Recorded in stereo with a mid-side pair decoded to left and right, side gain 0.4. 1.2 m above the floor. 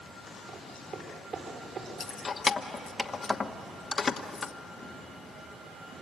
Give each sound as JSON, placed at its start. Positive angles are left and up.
{"t": 0.5, "sound": "footsteps", "azimuth_deg": -60, "distance_m": 9.5}
{"t": 2.0, "sound": "keys jangling", "azimuth_deg": 45, "distance_m": 1.2}